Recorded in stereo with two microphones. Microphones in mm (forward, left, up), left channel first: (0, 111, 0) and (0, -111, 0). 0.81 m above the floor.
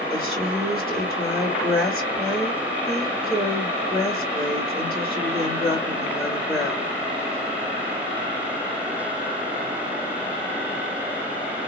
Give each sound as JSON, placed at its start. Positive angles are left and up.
{"t": 0.1, "sound": "a woman speaking", "side_deg": -25, "distance_m": 2.5}